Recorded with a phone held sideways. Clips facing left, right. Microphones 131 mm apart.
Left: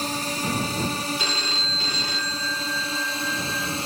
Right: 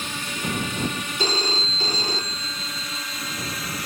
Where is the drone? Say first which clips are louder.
Left 3 dB; 40° left (ahead or behind); by 3.9 s 30° left (ahead or behind).